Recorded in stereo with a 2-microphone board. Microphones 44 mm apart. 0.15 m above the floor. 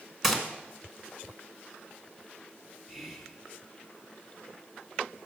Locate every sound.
0.2 s a gunshot: 5° right (ahead or behind), 1.4 m
2.9 s whispering: 5° right (ahead or behind), 1.4 m